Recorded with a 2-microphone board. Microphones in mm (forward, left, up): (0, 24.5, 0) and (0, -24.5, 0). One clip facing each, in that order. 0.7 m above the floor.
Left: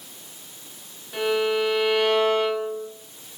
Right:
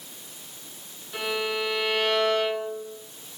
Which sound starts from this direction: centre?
A violin, at 1.1 s.